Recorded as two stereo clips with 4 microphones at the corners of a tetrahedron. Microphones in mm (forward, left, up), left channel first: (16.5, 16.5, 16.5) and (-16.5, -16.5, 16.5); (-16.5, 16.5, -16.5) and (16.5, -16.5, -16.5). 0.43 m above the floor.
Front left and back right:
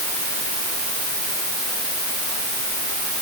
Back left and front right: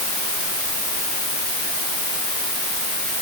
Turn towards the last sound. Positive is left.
No sound to turn to.